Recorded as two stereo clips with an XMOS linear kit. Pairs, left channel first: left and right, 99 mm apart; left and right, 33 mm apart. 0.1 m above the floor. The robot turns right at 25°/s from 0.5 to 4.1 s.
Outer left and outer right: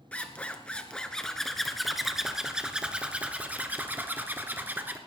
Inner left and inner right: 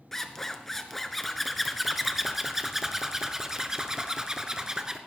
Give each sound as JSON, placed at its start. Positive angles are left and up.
{"t": 0.1, "sound": "a zipper", "side_deg": 10, "distance_m": 1.2}